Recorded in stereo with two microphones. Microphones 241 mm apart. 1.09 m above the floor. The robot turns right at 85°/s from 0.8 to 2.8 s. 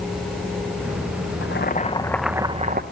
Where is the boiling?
110° left, 1.0 m; by 2.8 s 130° right, 1.0 m.